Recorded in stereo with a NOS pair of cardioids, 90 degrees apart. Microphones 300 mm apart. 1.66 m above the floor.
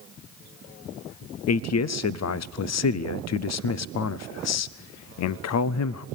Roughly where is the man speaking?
Ahead left.